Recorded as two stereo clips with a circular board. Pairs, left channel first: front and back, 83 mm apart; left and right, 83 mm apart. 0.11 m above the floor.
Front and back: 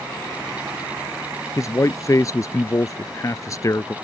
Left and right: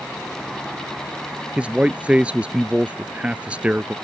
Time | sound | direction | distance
1.6 | a man speaking | 20° right | ?